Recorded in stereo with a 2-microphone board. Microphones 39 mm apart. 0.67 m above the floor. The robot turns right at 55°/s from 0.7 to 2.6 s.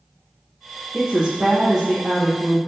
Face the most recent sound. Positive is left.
turn(degrees=50)